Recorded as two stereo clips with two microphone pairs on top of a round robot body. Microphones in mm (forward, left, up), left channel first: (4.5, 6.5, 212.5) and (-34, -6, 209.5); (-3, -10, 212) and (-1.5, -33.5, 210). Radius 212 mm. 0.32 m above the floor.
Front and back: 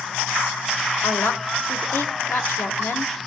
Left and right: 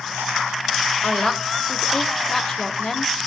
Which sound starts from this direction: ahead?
A woman speaking, at 1.0 s.